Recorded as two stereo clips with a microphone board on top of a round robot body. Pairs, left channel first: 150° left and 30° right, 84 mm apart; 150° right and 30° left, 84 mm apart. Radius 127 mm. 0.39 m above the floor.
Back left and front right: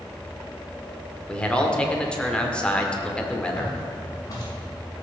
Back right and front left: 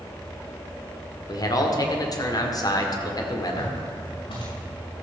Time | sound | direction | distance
1.3 | a man speaking | 135° right | 1.8 m
3.6 | footsteps | 160° right | 5 m